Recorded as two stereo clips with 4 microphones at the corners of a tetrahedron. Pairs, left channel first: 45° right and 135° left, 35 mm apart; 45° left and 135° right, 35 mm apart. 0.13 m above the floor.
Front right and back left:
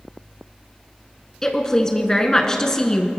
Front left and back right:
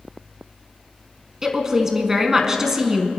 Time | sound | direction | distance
1.4 | a woman speaking | 85° right | 1.2 m